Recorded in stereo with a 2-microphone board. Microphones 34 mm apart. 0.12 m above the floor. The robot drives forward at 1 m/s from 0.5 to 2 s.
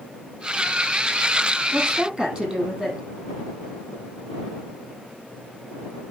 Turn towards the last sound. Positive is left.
turn(degrees=-20)  # may be behind; listen again after turning